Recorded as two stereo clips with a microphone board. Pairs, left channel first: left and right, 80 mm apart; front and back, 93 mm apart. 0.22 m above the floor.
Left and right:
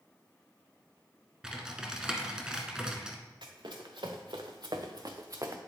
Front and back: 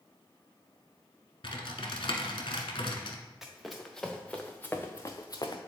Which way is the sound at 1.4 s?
10° right.